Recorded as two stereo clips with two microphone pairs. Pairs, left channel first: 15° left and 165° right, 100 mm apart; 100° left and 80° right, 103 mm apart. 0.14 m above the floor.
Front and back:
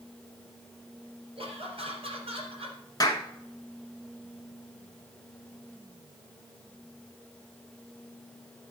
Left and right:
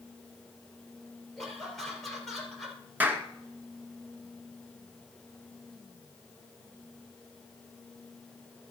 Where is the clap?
15° right, 1.2 m.